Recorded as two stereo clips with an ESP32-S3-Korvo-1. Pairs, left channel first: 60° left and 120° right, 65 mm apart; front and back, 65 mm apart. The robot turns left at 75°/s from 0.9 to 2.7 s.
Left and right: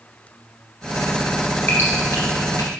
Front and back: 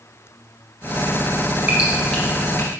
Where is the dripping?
120° left, 2.5 m; by 2.7 s 45° left, 2.5 m.